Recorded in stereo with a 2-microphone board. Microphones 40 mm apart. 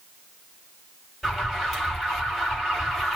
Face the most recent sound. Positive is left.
turn(degrees=10)  # may be behind; listen again after turning